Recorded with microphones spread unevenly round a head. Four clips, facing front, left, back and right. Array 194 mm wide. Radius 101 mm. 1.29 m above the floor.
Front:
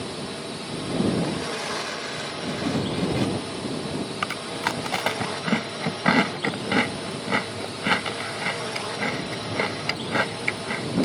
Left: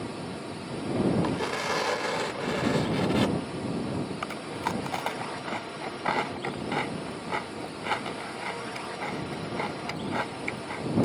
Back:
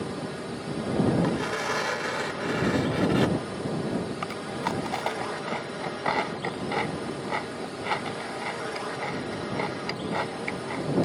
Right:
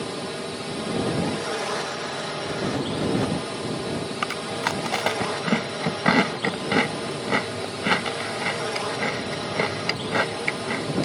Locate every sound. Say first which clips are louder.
0.0 s a drone: right 5 dB, even; 100° right
1.2 s tearing paper: right 2 dB, back 1 dB; 125° left
4.2 s chewing: right 5 dB, front 2 dB; 55° right